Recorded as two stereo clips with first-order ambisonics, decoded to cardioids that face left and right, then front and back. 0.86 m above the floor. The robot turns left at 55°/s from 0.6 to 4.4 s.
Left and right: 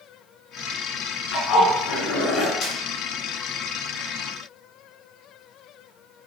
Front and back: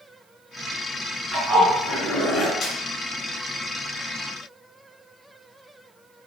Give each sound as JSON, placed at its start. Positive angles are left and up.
{"t": 1.3, "sound": "a zipper", "azimuth_deg": 110, "distance_m": 4.0}
{"t": 2.6, "sound": "a snare drum", "azimuth_deg": 50, "distance_m": 2.0}